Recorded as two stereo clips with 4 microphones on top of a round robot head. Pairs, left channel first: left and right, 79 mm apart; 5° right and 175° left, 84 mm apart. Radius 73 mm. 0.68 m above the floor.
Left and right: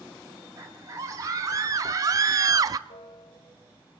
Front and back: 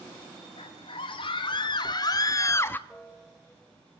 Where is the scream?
30° right, 3 m; by 2.8 s 65° right, 0.9 m.